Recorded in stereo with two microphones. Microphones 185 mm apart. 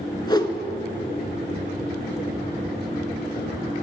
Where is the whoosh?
25° left (ahead or behind), 0.5 m.